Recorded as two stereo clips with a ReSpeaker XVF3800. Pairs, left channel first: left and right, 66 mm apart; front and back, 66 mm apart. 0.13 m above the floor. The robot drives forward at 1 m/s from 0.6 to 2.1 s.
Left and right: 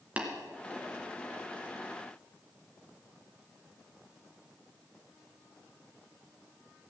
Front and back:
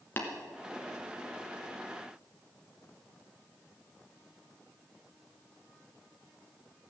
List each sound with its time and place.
0.2 s tapping: 35° right, 2.0 m